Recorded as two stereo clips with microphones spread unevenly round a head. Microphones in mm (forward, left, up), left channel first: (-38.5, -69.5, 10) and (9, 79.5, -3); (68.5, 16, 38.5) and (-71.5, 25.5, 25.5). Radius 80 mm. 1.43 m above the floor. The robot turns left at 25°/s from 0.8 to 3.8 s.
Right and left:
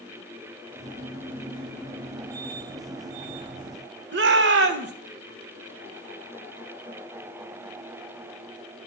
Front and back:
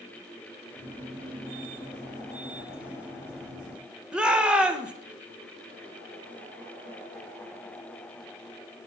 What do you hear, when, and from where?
4.1 s a shout: 90° left, 1.0 m